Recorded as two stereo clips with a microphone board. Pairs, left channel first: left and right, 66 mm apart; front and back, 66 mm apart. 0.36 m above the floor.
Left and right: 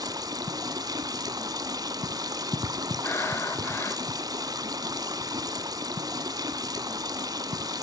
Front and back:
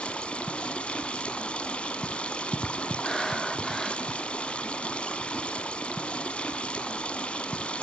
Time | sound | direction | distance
0.0 | running water | 75° right | 1.1 m
3.0 | breathing | 85° left | 1.6 m